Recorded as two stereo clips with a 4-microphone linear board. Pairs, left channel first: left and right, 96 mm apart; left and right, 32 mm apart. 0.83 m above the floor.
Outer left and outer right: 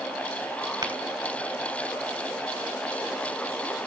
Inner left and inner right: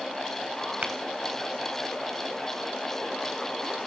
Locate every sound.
0.8 s tapping: 40° right (ahead or behind), 3 m